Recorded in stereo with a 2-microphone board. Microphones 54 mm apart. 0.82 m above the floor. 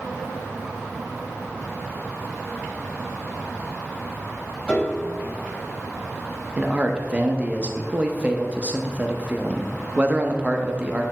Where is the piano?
25° left (ahead or behind), 1.3 m.